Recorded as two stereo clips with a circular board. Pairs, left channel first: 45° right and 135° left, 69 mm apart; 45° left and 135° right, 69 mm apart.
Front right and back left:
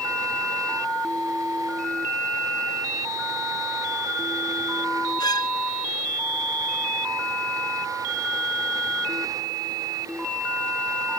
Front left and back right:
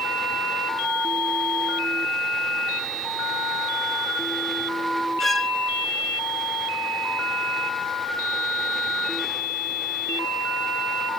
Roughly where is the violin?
Ahead right.